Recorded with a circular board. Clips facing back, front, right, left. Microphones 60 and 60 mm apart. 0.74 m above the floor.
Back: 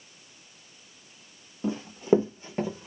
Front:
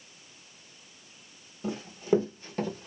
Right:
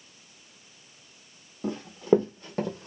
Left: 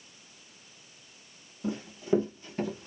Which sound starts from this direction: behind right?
Running footsteps, at 1.6 s.